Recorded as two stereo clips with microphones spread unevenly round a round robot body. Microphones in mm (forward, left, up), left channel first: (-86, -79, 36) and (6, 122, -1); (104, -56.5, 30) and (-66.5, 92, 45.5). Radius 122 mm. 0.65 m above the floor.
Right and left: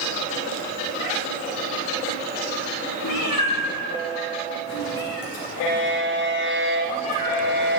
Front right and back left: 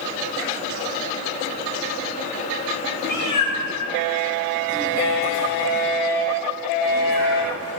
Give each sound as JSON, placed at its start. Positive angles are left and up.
{"t": 3.0, "sound": "a cat meowing", "azimuth_deg": -100, "distance_m": 3.5}